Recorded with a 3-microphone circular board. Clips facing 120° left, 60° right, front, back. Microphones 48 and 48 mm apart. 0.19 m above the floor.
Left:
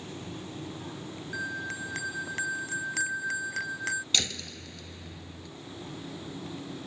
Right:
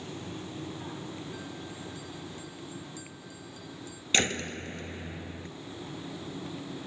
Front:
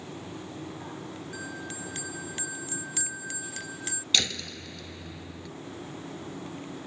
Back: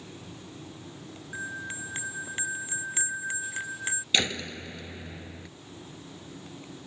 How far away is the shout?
I don't hear a shout.